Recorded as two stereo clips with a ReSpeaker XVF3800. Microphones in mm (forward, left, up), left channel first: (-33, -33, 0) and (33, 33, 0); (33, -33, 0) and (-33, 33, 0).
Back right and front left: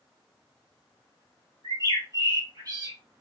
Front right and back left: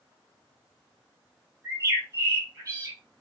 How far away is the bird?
About 2 m.